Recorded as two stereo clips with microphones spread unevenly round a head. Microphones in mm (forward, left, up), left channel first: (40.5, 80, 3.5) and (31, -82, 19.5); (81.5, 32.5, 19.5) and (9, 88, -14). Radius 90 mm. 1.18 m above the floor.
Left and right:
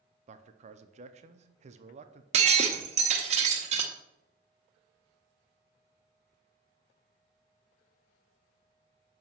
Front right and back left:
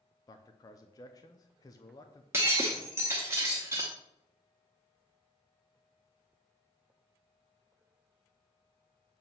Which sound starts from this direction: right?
A man speaking, at 0.3 s.